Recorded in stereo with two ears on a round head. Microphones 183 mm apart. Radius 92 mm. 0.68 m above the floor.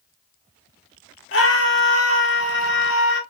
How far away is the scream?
About 1.9 m.